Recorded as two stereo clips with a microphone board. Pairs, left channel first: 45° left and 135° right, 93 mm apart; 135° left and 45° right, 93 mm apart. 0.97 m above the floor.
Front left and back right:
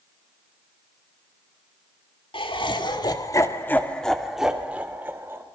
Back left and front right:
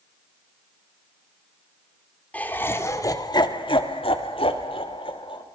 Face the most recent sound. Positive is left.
turn(degrees=160)